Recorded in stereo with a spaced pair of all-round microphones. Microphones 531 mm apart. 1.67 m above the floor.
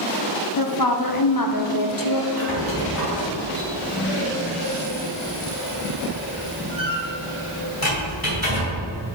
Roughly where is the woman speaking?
Left.